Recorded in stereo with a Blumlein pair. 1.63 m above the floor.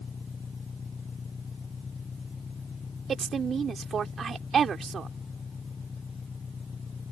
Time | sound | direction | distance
0.0 | an engine running | 15° left | ?
3.1 | a woman speaking | 20° right | ?